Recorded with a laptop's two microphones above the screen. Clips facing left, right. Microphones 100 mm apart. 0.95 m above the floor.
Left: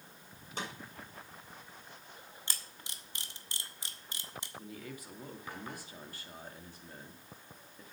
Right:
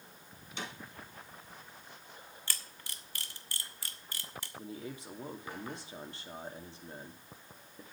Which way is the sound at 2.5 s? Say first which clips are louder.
Right 1 dB; 20° left (ahead or behind).